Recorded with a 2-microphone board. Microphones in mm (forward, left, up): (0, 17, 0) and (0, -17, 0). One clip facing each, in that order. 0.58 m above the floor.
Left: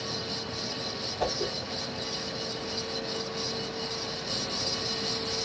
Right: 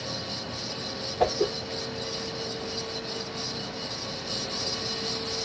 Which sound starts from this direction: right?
A whoosh, at 1.2 s.